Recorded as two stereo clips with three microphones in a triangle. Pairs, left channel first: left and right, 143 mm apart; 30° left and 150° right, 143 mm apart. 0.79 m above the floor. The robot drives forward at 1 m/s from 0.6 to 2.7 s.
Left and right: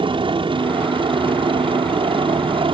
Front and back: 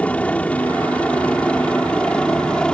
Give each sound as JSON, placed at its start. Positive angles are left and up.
{"t": 0.0, "sound": "a helicopter", "azimuth_deg": -50}